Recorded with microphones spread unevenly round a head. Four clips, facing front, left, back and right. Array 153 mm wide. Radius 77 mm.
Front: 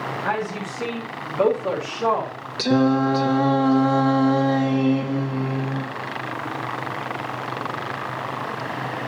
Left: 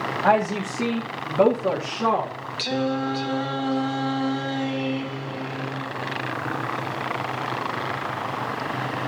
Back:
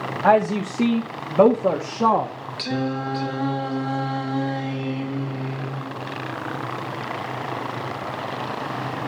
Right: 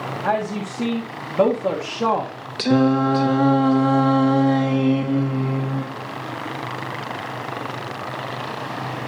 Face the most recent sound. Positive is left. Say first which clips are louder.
# right 8 dB, front 8 dB
turn(degrees=-50)